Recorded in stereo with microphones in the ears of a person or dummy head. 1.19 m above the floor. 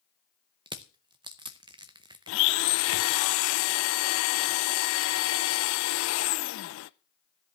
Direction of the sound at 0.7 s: 25° right (ahead or behind).